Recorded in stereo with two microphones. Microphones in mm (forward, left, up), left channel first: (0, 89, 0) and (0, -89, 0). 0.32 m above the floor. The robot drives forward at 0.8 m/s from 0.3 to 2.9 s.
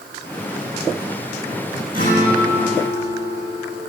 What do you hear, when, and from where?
1.9 s a guitar: 50° left (ahead or behind), 4 m; by 3.8 s 40° left (ahead or behind), 4.5 m